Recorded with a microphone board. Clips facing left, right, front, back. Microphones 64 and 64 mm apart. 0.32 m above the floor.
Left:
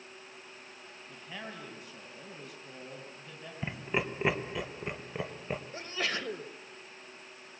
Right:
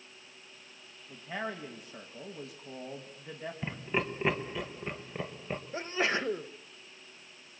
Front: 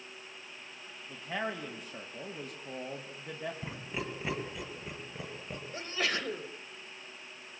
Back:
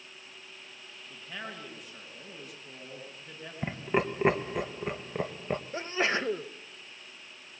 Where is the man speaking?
35° right, 2.5 m.